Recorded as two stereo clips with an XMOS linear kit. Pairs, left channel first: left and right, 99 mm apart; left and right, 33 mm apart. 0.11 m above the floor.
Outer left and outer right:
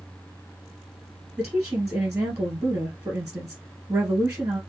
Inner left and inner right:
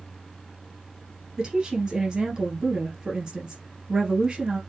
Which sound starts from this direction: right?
A woman speaking, at 1.4 s.